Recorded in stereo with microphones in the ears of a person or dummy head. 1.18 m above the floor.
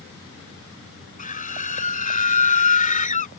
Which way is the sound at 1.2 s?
40° left (ahead or behind).